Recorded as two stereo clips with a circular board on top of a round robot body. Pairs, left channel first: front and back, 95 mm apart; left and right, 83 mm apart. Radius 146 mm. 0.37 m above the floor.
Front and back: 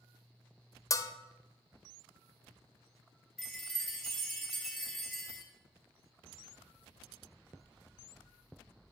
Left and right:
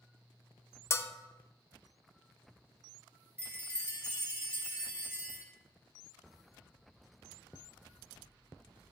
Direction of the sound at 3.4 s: 85° right.